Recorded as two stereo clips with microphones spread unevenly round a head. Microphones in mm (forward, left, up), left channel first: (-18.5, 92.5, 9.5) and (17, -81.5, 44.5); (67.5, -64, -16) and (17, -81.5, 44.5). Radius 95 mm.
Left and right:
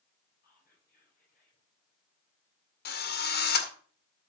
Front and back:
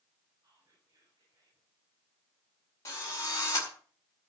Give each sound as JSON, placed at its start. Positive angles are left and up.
{"t": 0.4, "sound": "whispering", "azimuth_deg": 145, "distance_m": 5.5}
{"t": 2.9, "sound": "a drill", "azimuth_deg": 65, "distance_m": 2.0}